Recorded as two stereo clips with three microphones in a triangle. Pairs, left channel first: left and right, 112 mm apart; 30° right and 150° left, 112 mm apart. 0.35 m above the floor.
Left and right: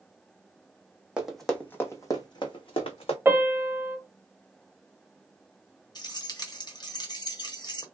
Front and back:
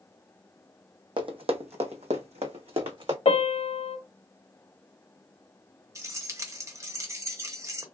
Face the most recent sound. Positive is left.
turn(degrees=105)